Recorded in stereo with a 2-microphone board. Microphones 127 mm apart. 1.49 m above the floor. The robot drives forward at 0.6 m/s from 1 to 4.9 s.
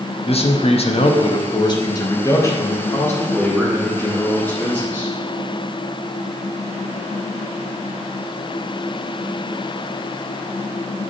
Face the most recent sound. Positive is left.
turn(degrees=15)  # may be behind; listen again after turning